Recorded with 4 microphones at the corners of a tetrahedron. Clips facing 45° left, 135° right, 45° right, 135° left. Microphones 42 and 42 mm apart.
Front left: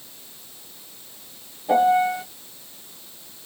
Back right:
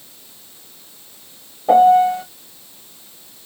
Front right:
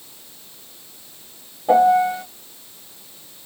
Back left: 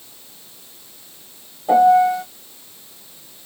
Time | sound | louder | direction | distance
1.7 | a piano | back right 7 dB, back left 2 dB | 120° right | 1.0 m